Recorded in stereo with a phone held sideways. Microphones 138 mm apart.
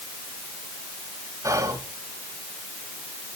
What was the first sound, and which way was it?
Whispering, 25° right (ahead or behind).